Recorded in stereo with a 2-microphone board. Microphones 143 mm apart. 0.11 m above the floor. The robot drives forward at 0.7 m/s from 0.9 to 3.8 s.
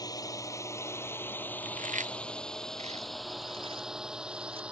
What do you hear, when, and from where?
0.0 s a drone: 25° left (ahead or behind); by 4.7 s 10° right (ahead or behind)
1.6 s chewing: 65° right (ahead or behind); by 4.6 s 40° right (ahead or behind)